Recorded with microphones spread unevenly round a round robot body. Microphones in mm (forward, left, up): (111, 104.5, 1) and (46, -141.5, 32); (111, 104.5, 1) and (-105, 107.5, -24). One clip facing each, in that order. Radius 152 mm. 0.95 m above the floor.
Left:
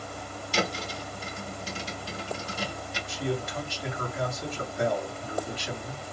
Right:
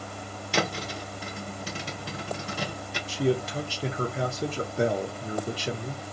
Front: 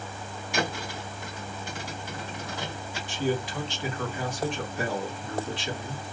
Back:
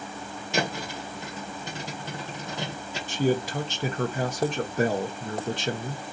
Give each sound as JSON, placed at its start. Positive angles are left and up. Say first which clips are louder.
{"t": 0.5, "sound": "a thud", "louder": "right 1 dB, back 2 dB", "azimuth_deg": -110, "distance_m": 0.9}
{"t": 3.1, "sound": "a man speaking", "louder": "right 6 dB, back 4 dB", "azimuth_deg": -160, "distance_m": 0.6}